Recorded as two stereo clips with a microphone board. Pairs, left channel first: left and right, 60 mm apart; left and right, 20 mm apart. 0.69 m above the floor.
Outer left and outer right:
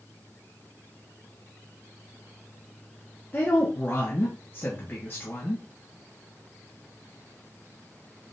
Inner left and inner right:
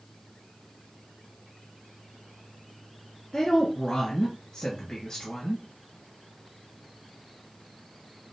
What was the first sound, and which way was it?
A woman speaking, 35° left (ahead or behind).